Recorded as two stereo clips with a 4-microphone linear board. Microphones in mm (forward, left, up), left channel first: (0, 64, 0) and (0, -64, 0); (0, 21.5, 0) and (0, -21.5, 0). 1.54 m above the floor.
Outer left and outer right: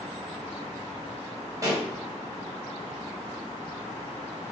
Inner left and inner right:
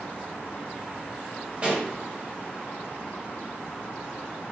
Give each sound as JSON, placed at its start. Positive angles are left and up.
{"t": 1.6, "sound": "a pop", "side_deg": -25, "distance_m": 1.2}